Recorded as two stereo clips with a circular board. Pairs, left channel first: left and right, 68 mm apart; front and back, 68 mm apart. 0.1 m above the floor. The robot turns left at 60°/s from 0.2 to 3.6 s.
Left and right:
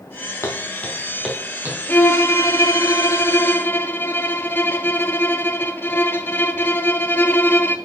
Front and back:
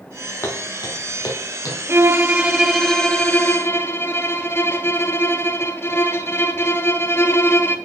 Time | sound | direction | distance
0.4 | footsteps | 45° left | 2 m
1.9 | a violin | 145° left | 0.7 m